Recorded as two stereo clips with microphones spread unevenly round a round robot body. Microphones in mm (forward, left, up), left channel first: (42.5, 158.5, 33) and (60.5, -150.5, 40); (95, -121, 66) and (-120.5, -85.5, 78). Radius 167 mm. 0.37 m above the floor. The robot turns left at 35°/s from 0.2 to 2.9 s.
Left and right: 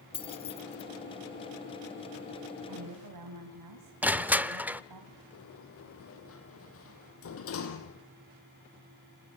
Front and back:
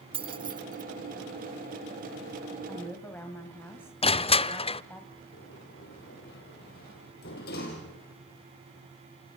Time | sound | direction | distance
0.1 | keys jangling | 135° left | 0.8 m
2.7 | a woman speaking | 80° right | 3.5 m
4.0 | crushing | 5° right | 0.7 m
5.3 | a sliding door | 45° left | 3 m